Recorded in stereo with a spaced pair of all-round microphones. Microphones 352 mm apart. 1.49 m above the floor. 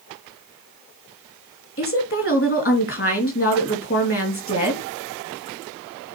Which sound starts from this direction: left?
A woman speaking, at 1.8 s.